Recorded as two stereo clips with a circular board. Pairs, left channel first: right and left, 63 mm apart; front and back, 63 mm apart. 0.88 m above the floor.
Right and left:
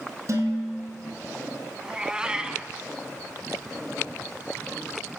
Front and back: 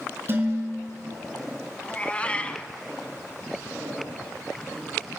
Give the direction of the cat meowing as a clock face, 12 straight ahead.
11 o'clock.